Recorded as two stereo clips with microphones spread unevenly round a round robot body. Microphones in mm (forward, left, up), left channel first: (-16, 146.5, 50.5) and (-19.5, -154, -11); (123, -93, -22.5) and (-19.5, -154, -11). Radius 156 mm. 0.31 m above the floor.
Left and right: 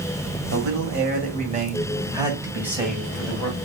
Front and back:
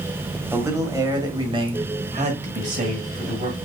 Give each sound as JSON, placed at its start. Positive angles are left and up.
{"t": 0.5, "sound": "a man speaking", "azimuth_deg": -80, "distance_m": 1.7}